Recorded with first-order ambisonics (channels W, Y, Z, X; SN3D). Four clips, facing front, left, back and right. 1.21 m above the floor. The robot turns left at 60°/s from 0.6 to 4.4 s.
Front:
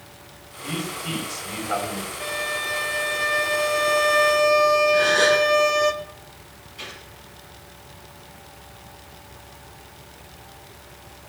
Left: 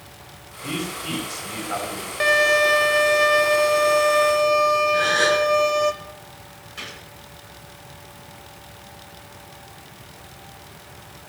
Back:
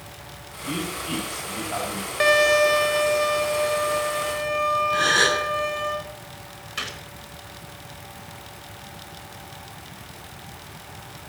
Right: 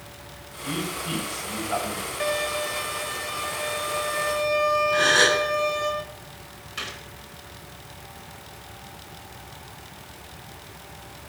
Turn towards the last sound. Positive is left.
turn(degrees=-160)